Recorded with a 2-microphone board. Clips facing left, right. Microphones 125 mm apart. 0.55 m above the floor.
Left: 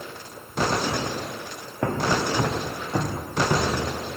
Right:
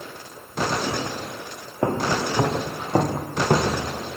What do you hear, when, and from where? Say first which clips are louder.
1.8 s footsteps: right 1 dB; 25° right (ahead or behind), 2 m; by 4.1 s 65° right (ahead or behind), 3 m